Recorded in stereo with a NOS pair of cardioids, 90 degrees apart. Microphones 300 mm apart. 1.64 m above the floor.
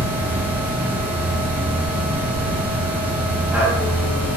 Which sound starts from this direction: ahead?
A machine running, at 0.0 s.